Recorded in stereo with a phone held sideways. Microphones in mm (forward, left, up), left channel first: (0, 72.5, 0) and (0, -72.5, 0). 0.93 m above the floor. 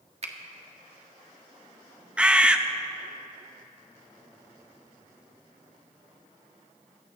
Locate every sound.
0.2 s a finger snap: 50° right (ahead or behind), 1.3 m
2.2 s a bird: 5° right (ahead or behind), 0.6 m